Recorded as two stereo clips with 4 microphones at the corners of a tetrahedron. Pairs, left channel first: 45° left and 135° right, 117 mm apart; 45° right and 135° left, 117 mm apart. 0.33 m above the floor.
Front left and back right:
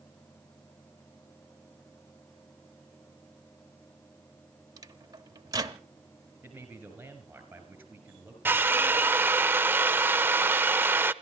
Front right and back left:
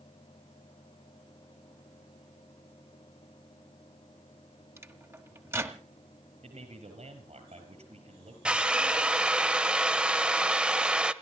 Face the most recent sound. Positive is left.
turn(degrees=-160)